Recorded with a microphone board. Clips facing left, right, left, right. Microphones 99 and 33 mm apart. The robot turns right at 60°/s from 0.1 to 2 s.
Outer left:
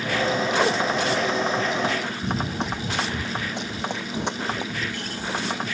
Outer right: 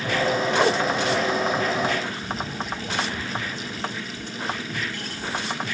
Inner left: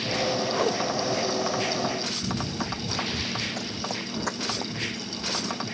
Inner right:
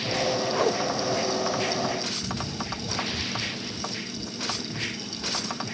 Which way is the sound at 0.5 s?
Centre (ahead or behind).